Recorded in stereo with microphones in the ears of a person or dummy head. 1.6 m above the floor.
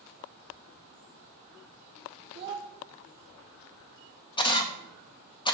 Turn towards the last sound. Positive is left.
turn(degrees=30)  # may be behind; listen again after turning